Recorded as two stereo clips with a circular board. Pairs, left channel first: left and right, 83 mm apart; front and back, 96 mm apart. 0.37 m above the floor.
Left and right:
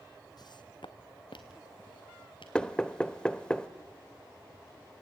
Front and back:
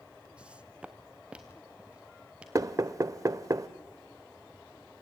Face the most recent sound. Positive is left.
turn(degrees=160)